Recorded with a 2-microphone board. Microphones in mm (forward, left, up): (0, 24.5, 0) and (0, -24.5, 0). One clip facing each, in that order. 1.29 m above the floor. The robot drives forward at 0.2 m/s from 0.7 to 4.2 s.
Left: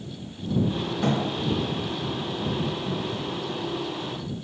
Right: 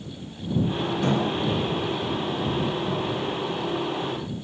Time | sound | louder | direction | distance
1.0 | a thud | even | 35° left (ahead or behind) | 1.6 m